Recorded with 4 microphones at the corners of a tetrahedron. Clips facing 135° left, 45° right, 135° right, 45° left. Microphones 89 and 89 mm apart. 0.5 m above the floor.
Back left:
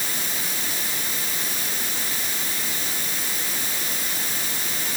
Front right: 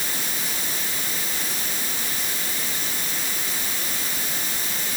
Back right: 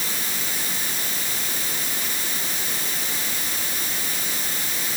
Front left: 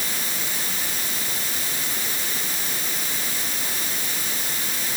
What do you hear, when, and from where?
Only background noise.